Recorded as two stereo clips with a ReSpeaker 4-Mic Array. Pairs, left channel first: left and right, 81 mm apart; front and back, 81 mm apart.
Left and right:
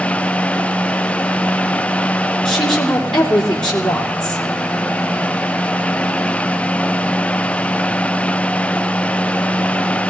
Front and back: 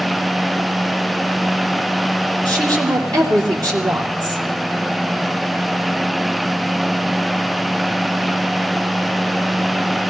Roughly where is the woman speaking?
Behind.